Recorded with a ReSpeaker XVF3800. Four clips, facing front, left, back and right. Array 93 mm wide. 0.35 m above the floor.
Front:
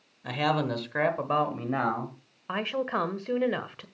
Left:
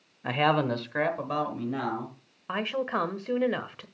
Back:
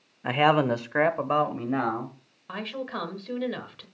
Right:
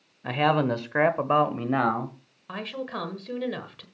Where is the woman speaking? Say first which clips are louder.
Left 4 dB, front 4 dB; 45° left, 1.3 m.